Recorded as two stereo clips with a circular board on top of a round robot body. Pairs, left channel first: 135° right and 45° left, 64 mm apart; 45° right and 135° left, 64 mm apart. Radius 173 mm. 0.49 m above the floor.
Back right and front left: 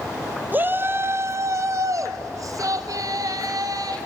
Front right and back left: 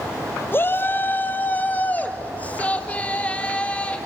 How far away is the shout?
About 1.2 m.